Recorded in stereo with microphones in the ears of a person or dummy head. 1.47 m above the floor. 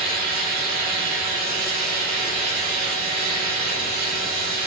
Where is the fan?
50° right (ahead or behind), 3 m.